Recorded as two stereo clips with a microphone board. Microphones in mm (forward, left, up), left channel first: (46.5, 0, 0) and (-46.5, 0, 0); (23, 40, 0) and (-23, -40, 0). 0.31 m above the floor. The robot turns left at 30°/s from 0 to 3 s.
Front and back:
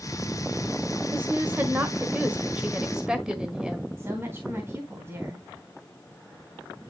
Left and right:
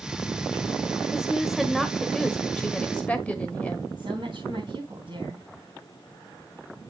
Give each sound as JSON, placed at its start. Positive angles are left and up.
{"t": 1.1, "sound": "a woman speaking", "azimuth_deg": 170, "distance_m": 1.4}
{"t": 4.0, "sound": "a woman speaking", "azimuth_deg": -120, "distance_m": 3.0}